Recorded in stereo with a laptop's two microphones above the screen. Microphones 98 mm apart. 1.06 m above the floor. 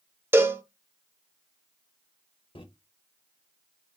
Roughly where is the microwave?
Left.